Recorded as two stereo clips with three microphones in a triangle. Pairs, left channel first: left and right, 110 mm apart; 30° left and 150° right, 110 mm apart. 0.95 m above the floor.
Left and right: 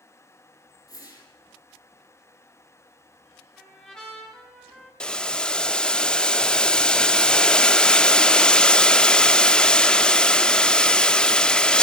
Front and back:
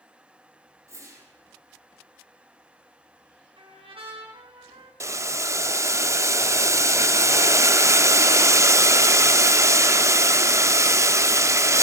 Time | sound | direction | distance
0.9 | a whoosh | 150° left | 4.5 m
3.6 | a trumpet | 175° left | 5.5 m
5.0 | boiling | 170° left | 0.5 m